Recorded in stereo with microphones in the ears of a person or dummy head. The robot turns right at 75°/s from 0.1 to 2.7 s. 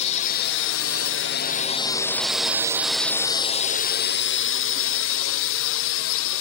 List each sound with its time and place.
0.0 s a drone: 35° left (ahead or behind); by 6.4 s 70° left (ahead or behind)